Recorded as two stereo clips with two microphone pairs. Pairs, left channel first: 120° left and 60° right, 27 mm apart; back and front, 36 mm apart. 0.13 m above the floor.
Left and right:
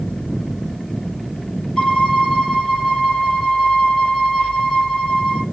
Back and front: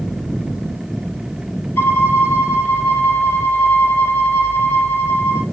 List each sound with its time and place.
1.8 s a violin: 170° right, 2.0 m